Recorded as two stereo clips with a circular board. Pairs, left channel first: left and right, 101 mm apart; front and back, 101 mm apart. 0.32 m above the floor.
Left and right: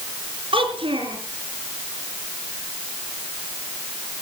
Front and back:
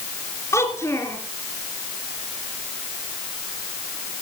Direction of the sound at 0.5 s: 60° right.